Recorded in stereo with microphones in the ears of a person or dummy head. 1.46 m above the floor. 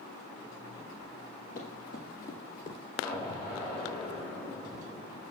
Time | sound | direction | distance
1.6 | running footsteps | 45° left (ahead or behind) | 2 m
3.0 | an explosion | 30° left (ahead or behind) | 6.5 m